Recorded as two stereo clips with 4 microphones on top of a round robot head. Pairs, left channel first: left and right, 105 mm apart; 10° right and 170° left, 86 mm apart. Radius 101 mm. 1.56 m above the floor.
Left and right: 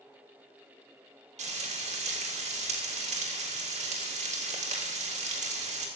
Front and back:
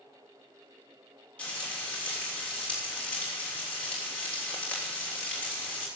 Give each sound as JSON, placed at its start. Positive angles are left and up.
{"t": 1.4, "sound": "frying", "azimuth_deg": -90, "distance_m": 3.0}